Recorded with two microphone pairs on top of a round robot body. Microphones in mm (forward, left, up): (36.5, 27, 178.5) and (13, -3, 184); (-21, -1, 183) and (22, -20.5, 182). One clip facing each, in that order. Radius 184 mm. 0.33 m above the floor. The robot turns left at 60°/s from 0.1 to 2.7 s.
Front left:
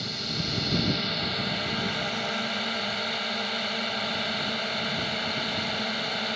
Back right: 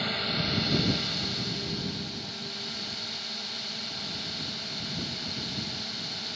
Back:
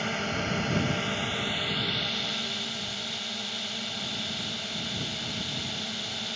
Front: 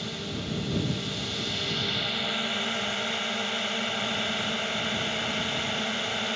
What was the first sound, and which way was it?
A drone, straight behind.